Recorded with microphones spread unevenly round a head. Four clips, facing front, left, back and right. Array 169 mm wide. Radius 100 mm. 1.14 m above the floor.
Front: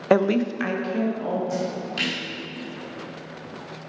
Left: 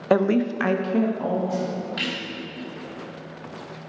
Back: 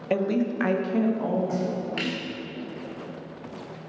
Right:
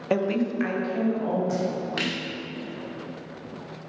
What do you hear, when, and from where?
0.1 s a woman speaking: 20° left, 0.6 m; by 1.4 s 95° left, 1.7 m
1.5 s a splash: 130° right, 1.6 m